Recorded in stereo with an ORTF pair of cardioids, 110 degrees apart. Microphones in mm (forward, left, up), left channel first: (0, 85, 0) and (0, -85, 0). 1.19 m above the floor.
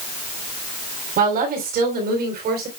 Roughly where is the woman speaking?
Ahead right.